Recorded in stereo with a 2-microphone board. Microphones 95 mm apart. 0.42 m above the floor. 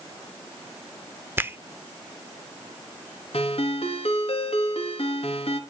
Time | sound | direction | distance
1.4 | a finger snap | 20° right (ahead or behind) | 0.5 m
3.3 | a ringtone | 85° left | 3 m